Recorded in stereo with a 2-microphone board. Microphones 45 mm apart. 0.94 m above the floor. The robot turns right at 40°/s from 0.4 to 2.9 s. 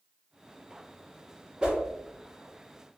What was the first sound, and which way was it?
A whoosh, 20° right (ahead or behind).